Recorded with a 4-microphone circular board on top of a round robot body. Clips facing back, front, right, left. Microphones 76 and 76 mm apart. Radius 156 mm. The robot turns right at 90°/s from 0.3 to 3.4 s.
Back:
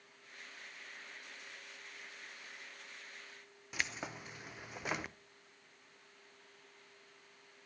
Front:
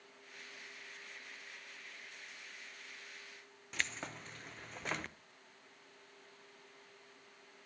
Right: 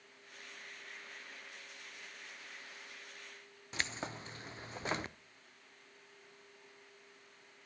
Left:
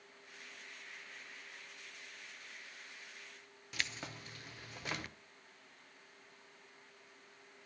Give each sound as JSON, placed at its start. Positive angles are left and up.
{"t": 3.7, "sound": "keys jangling", "azimuth_deg": -110, "distance_m": 0.6}